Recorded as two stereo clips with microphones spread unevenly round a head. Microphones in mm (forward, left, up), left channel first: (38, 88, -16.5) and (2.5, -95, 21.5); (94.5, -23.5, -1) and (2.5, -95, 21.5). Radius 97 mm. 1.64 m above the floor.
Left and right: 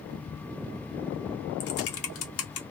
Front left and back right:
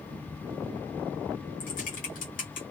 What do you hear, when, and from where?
1.6 s typing on a keyboard: 75° left, 0.8 m